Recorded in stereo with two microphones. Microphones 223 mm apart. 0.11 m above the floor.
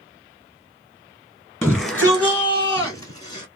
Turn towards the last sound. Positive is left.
turn(degrees=20)  # may be behind; listen again after turning